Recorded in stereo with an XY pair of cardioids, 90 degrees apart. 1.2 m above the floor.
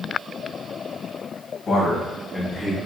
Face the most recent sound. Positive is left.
turn(degrees=10)